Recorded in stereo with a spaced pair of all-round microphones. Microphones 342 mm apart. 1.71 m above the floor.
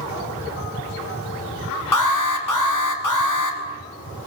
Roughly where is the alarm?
Left.